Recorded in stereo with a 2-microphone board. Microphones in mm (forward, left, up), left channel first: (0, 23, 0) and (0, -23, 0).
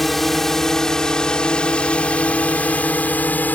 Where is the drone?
5° left (ahead or behind); by 3.6 s 40° left (ahead or behind).